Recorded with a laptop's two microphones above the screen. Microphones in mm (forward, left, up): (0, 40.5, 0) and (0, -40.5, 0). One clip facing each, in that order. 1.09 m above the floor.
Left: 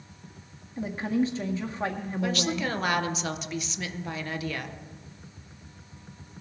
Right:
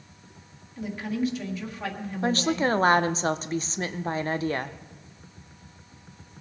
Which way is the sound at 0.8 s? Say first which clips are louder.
Left 2 dB; 30° left (ahead or behind).